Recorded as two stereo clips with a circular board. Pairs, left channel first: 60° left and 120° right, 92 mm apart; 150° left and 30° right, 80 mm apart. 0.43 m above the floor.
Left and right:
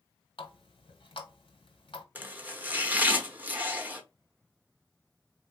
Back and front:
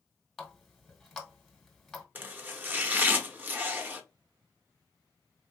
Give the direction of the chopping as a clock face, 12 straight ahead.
2 o'clock.